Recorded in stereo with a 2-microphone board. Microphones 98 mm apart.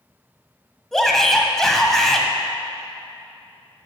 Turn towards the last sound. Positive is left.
turn(degrees=5)  # may be behind; listen again after turning